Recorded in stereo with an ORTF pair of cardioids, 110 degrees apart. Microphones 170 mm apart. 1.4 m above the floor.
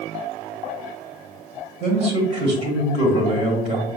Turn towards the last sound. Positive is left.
turn(degrees=-40)